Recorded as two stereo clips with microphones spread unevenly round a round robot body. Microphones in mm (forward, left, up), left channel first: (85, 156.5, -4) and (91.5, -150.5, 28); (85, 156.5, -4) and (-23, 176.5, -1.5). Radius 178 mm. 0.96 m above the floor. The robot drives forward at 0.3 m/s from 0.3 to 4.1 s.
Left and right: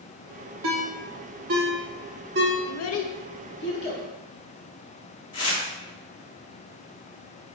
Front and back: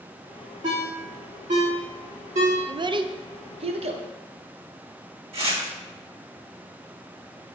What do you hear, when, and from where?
0.6 s a ringtone: 135° right, 1.0 m; by 2.5 s 155° right, 1.4 m
2.7 s a child speaking: 115° left, 0.5 m; by 4.0 s 150° left, 0.8 m
5.3 s tearing paper: 145° left, 2.5 m